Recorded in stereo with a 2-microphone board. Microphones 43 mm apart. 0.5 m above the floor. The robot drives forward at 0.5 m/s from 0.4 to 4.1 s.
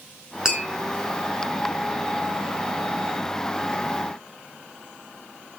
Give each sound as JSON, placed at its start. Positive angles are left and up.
{"t": 0.5, "sound": "tapping", "side_deg": -15, "distance_m": 6.5}